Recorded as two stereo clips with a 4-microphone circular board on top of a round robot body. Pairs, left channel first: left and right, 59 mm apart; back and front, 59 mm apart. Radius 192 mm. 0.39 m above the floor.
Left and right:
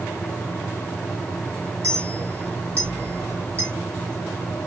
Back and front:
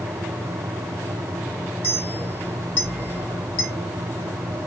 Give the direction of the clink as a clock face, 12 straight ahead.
4 o'clock.